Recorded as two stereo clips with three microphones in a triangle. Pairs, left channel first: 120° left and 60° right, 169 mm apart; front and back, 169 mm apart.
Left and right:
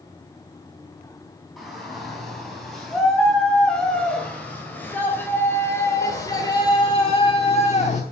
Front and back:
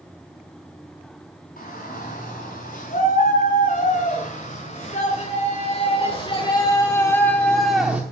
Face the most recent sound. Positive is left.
turn(degrees=100)